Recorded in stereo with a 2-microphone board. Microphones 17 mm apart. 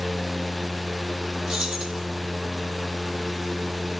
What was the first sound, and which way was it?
Keys jangling, 50° right (ahead or behind).